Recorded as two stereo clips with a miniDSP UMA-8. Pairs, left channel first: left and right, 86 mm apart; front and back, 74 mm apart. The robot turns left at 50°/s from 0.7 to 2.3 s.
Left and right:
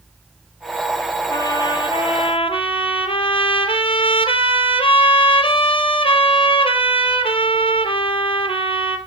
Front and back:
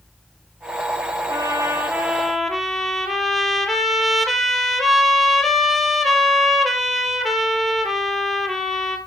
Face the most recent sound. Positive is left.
turn(degrees=90)